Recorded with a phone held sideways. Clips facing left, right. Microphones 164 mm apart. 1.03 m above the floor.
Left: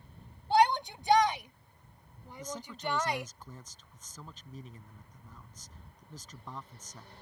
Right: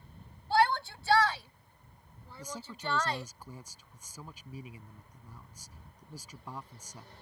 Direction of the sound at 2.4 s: 10° right (ahead or behind).